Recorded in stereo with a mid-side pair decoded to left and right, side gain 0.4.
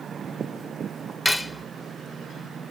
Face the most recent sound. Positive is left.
turn(degrees=15)